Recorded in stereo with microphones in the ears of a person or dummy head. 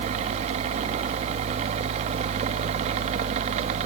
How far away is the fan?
About 1.1 m.